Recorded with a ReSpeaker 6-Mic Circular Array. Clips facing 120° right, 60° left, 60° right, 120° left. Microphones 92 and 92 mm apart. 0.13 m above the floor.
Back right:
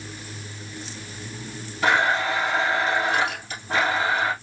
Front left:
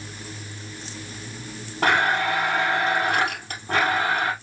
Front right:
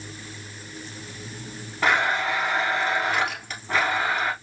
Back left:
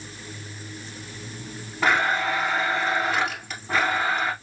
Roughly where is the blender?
Ahead left.